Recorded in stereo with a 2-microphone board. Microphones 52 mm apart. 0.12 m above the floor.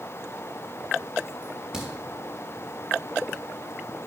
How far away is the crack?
About 3 m.